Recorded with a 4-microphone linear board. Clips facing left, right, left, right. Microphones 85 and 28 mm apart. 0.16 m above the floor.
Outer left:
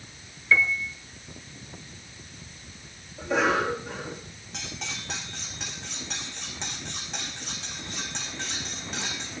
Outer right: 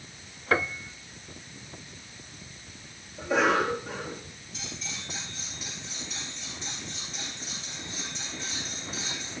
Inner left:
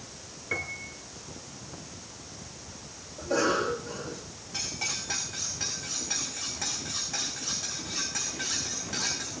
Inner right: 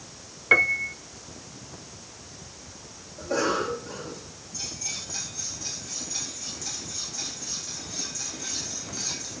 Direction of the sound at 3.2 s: Centre (ahead or behind).